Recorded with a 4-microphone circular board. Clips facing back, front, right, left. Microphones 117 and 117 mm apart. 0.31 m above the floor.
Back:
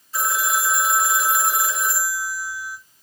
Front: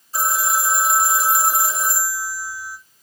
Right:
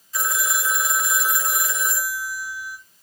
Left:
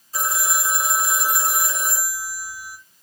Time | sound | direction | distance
0.1 | a phone ringing | 45° left | 1.2 m